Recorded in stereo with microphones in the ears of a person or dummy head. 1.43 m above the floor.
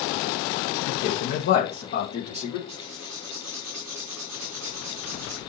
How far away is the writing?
About 3.5 m.